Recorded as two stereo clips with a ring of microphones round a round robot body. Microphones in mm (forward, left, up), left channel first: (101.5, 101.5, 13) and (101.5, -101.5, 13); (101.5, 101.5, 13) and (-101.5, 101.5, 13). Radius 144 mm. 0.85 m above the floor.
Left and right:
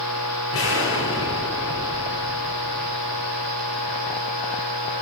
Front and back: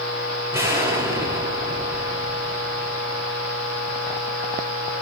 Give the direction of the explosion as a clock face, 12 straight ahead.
9 o'clock.